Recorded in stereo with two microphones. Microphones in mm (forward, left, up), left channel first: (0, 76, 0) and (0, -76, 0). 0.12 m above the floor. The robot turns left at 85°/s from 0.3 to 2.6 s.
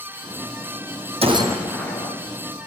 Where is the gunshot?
140° right, 2 m; by 2.1 s 140° left, 2 m.